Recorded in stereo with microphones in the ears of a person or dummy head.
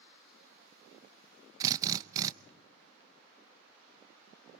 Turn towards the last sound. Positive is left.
turn(degrees=-15)  # may be behind; listen again after turning